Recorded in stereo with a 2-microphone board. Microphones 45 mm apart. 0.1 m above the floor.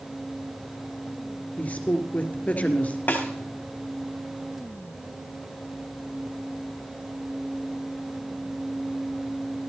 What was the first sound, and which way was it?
A woman speaking, 35° left (ahead or behind).